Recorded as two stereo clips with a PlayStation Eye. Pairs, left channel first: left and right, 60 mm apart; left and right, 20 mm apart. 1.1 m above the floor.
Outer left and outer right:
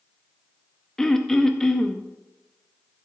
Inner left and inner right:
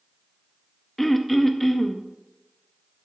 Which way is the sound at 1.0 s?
10° left (ahead or behind).